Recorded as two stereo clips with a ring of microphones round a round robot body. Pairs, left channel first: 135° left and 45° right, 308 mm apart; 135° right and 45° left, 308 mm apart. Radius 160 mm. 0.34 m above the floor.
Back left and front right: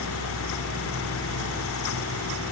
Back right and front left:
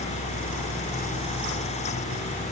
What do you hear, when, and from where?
Only background noise.